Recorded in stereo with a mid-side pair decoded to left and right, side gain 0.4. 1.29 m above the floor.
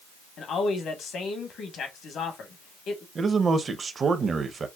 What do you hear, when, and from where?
0.4 s a man speaking: 70° left, 1.4 m
3.1 s a man speaking: 45° right, 0.8 m